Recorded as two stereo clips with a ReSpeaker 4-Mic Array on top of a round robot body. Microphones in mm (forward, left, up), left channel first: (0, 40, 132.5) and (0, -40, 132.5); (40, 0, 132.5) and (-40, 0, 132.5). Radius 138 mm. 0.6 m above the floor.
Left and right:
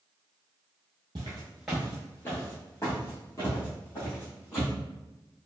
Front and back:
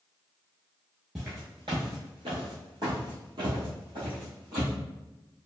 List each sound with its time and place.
1.1 s footsteps: 95° right, 0.6 m; by 4.7 s 140° left, 2 m